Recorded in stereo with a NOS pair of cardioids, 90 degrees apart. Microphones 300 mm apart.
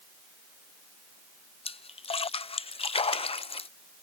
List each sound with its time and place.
1.6 s a splash: 20° left